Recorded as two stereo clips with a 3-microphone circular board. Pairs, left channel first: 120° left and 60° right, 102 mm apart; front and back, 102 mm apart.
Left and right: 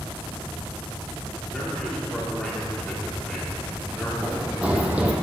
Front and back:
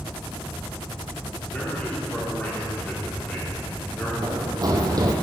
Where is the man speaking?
45° left, 1.2 m.